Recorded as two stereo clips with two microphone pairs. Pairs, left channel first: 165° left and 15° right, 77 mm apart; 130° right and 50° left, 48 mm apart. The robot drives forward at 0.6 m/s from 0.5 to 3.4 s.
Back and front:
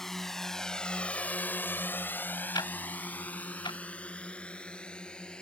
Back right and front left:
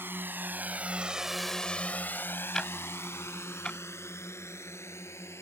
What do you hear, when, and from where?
0.0 s a drone: 80° left; by 5.4 s 115° right
2.5 s ticking: 155° left; by 3.8 s 165° left